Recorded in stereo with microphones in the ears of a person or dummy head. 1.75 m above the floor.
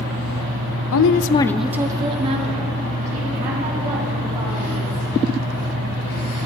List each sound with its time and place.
0.9 s a woman speaking: 80° left, 0.8 m; by 5.2 s 50° right (ahead or behind), 5.5 m